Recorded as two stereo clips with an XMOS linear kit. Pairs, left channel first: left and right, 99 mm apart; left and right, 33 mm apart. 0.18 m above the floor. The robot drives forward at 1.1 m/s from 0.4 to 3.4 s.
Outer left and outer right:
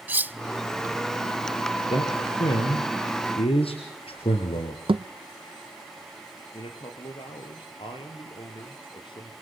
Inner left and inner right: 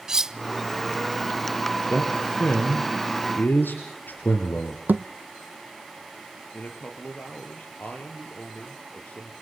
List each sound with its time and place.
0.1 s cutlery clinking: 20° right (ahead or behind), 0.6 m
1.9 s a man speaking: 65° left (ahead or behind), 3.5 m; by 4.8 s 70° left (ahead or behind), 3.5 m
4.9 s a thud: 60° right (ahead or behind), 0.8 m
6.5 s a man speaking: 55° left (ahead or behind), 3.5 m